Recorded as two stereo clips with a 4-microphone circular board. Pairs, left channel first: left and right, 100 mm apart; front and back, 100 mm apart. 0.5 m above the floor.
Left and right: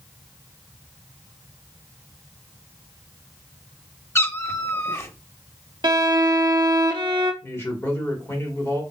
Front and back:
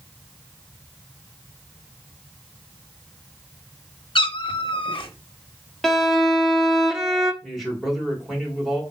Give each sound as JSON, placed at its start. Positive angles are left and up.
{"t": 4.2, "sound": "a cat meowing", "azimuth_deg": 30, "distance_m": 0.5}
{"t": 5.8, "sound": "a violin", "azimuth_deg": -90, "distance_m": 0.5}
{"t": 7.4, "sound": "a man speaking", "azimuth_deg": 90, "distance_m": 1.3}